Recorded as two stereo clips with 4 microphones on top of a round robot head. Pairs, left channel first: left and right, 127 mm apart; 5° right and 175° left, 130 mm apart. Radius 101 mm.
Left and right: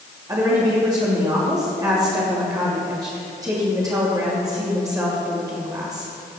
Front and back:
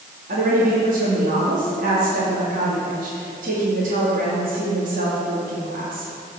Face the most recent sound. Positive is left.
turn(degrees=-150)